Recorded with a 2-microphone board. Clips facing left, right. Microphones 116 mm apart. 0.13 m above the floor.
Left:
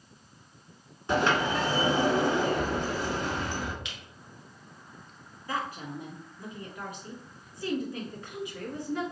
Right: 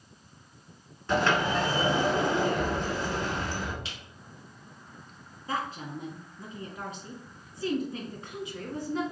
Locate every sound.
1.1 s a sliding door: 15° left (ahead or behind), 1.4 m
3.9 s a camera shutter: 35° right (ahead or behind), 1.3 m
5.5 s a woman speaking: 25° right (ahead or behind), 1.3 m